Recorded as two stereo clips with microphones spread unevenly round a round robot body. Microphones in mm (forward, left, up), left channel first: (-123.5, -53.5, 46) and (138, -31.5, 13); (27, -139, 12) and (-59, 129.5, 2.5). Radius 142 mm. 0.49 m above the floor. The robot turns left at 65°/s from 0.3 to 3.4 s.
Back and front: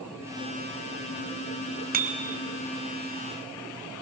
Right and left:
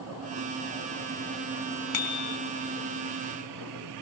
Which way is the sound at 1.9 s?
50° right.